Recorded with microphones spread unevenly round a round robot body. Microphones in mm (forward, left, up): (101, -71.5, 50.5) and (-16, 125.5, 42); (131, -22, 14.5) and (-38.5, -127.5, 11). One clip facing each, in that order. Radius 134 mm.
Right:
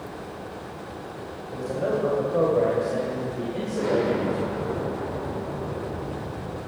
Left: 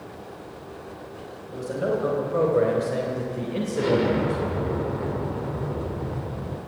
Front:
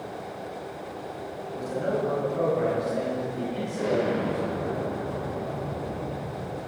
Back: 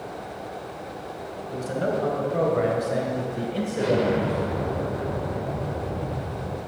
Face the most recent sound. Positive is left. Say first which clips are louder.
# left 1 dB, back 3 dB
turn(degrees=160)